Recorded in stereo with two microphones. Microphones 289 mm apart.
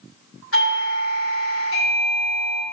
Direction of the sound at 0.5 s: 50° left (ahead or behind).